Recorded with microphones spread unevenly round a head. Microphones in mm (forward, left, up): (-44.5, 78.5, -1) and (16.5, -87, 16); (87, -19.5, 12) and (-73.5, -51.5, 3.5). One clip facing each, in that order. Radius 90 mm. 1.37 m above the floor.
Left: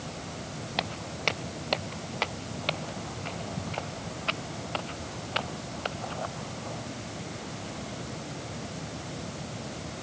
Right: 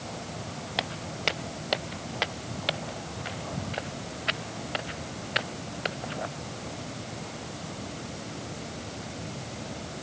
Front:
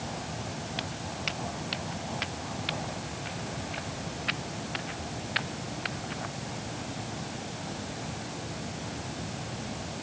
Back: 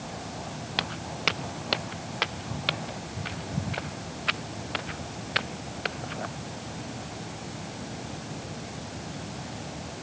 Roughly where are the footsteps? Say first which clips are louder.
Even, back 3 dB; behind right.